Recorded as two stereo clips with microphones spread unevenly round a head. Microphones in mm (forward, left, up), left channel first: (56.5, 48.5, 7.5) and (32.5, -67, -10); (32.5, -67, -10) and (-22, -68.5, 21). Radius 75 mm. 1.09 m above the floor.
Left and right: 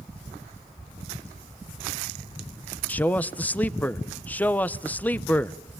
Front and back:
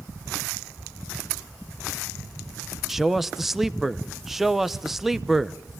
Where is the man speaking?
Straight ahead, 0.7 m.